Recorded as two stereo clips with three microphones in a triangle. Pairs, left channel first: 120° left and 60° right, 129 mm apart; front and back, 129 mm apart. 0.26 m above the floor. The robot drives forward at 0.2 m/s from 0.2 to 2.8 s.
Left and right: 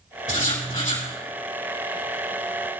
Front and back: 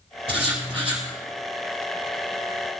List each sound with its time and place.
0.3 s writing: 135° left, 3.5 m; by 1.1 s 140° left, 3.5 m